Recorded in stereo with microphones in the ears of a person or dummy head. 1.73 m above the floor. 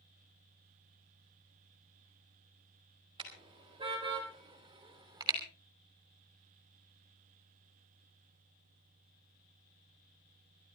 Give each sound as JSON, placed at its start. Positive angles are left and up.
{"t": 3.2, "sound": "a car horn", "side_deg": -30, "distance_m": 4.5}